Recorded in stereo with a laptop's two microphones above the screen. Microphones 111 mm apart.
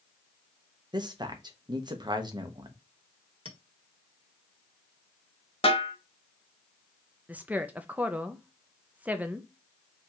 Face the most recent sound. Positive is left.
turn(degrees=-15)  # may be behind; listen again after turning